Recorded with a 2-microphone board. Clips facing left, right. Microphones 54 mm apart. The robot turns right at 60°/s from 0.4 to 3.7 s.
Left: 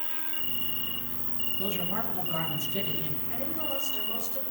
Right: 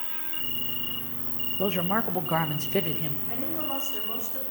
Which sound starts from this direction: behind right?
A man speaking, at 1.6 s.